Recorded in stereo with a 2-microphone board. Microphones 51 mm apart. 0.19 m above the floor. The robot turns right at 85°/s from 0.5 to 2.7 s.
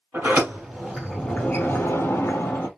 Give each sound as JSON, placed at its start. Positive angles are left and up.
{"t": 0.1, "sound": "a sliding door", "azimuth_deg": -45, "distance_m": 3.0}